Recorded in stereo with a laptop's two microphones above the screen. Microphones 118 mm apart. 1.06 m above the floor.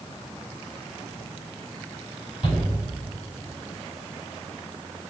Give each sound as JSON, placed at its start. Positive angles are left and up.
{"t": 2.4, "sound": "a shout", "side_deg": 45, "distance_m": 6.0}